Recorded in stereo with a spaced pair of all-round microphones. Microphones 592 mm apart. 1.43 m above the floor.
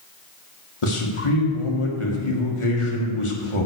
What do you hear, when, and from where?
0.8 s a man speaking: 55° left (ahead or behind), 1.6 m